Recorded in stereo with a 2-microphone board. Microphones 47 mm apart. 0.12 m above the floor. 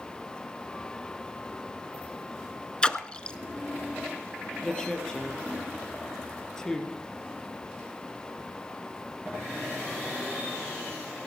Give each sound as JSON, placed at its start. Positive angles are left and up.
{"t": 2.8, "sound": "a splash", "side_deg": 20, "distance_m": 0.8}
{"t": 4.6, "sound": "a woman speaking", "side_deg": 15, "distance_m": 3.0}